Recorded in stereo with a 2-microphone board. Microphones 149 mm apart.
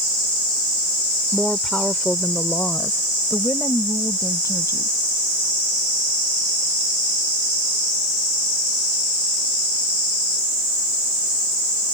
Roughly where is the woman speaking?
Centre.